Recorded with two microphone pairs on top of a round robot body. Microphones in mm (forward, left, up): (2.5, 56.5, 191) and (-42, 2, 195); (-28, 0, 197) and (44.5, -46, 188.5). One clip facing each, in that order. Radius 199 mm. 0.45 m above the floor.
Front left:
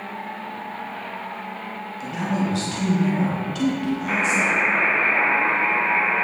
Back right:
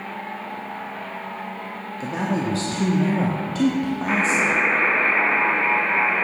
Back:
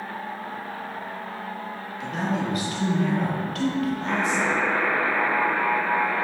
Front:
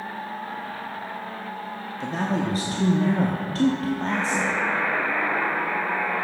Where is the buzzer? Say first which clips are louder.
Back right 1 dB, back 2 dB; 155° left, 1.1 m.